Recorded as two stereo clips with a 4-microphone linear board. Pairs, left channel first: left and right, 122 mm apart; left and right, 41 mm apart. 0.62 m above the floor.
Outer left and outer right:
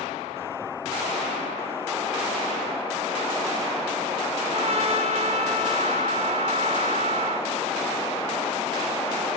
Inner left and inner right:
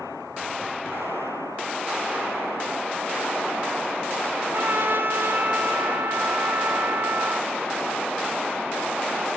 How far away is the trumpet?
About 2 m.